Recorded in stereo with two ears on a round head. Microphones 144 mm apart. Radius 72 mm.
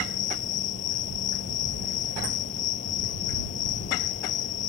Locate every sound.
0.0 s an insect: 55° left (ahead or behind)